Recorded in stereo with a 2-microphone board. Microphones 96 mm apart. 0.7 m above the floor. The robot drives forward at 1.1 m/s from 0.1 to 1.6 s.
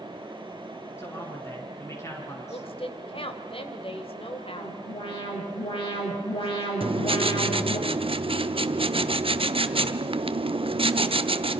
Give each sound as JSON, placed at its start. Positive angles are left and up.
{"t": 1.0, "sound": "a man speaking", "side_deg": 30, "distance_m": 8.0}
{"t": 2.5, "sound": "a woman speaking", "side_deg": 80, "distance_m": 2.5}
{"t": 4.5, "sound": "an alarm", "side_deg": 75, "distance_m": 7.0}
{"t": 6.8, "sound": "writing", "side_deg": -75, "distance_m": 1.0}